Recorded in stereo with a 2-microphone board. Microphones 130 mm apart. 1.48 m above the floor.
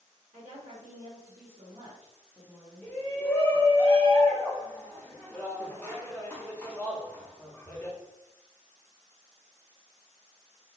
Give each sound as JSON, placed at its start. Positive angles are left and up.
{"t": 0.3, "sound": "a woman speaking", "side_deg": -75, "distance_m": 1.3}
{"t": 2.8, "sound": "a shout", "side_deg": 15, "distance_m": 0.8}